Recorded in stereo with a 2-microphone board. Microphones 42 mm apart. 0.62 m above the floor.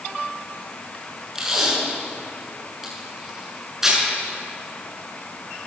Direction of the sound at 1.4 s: 5° right (ahead or behind).